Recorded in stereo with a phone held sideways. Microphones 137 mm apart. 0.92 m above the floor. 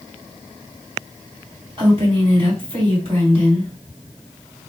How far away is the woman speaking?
About 3 m.